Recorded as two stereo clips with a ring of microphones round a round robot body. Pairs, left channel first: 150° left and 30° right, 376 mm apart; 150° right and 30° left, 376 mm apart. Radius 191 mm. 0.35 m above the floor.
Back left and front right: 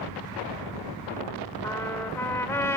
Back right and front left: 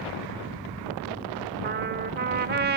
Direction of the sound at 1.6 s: 70° left.